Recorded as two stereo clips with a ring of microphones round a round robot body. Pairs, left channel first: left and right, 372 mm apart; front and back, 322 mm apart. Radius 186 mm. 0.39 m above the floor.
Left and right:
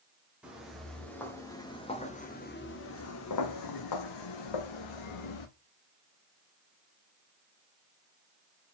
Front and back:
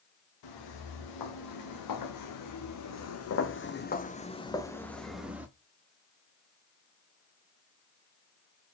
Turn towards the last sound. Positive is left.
turn(degrees=95)